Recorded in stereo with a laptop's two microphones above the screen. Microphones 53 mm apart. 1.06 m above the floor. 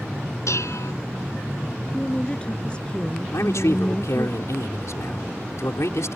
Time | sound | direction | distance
0.5 | dishes clattering | 75° left (ahead or behind) | ?
1.8 | a woman speaking | 20° left (ahead or behind) | ?
3.3 | a man speaking | 75° left (ahead or behind) | ?